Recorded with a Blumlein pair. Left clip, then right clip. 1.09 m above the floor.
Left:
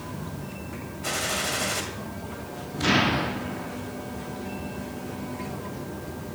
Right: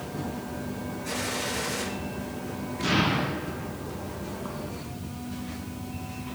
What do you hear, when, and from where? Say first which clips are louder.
1.0 s a gunshot: left 4 dB; 45° left, 2.5 m
2.8 s an explosion: left 3 dB; 70° left, 1.6 m